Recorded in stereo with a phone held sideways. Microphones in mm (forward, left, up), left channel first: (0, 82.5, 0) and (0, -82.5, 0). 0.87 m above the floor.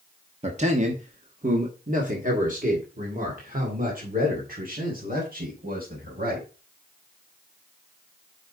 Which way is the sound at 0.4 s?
40° right (ahead or behind).